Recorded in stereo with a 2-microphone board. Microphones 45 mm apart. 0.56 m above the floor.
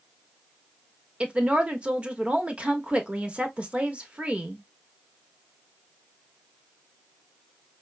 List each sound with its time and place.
1.2 s a woman speaking: 30° right (ahead or behind), 0.9 m